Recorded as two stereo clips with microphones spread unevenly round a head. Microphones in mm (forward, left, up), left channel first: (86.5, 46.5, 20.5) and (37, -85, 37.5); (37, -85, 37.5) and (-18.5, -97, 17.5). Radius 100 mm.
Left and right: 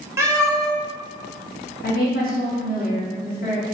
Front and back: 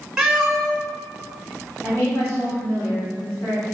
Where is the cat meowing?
75° right, 1.3 m.